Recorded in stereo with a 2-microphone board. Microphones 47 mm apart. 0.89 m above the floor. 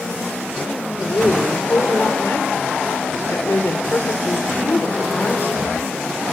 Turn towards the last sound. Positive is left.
turn(degrees=50)  # may be behind; listen again after turning